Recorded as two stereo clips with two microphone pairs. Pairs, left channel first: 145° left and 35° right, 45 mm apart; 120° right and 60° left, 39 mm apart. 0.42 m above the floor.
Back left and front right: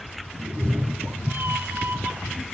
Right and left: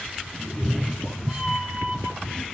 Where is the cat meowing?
50° right, 0.6 m; by 2.4 s 5° left, 1.4 m.